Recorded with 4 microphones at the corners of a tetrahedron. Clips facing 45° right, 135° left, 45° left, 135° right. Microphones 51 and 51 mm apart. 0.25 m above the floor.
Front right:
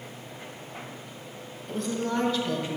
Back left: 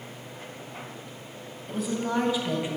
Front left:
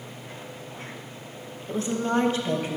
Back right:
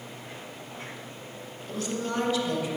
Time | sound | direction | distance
1.7 | a woman speaking | 50° left | 1.3 m